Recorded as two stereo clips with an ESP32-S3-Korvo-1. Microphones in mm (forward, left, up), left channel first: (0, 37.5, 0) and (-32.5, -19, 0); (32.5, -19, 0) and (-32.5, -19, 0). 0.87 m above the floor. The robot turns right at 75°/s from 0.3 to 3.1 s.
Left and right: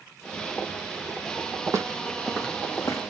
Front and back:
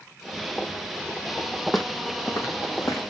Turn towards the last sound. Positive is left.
turn(degrees=45)